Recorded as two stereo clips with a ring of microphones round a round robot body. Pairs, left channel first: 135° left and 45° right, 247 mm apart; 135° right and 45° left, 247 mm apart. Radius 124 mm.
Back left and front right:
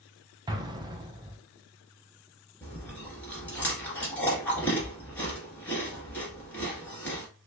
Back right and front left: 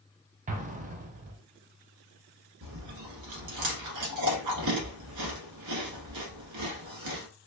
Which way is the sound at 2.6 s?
50° left.